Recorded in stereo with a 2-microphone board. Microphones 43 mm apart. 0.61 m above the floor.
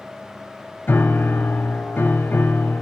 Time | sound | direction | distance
0.9 | a piano | 65° left (ahead or behind) | 1.2 m